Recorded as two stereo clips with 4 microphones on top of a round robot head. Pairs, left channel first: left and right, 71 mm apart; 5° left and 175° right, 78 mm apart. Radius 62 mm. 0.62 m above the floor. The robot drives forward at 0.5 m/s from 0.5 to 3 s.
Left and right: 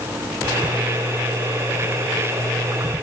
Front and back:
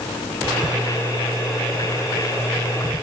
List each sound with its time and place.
Only background noise.